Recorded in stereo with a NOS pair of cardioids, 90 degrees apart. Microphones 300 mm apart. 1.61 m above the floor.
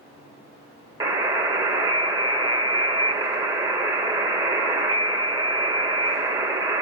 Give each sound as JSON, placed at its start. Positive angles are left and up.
{"t": 1.0, "sound": "a buzzer", "azimuth_deg": -10, "distance_m": 1.0}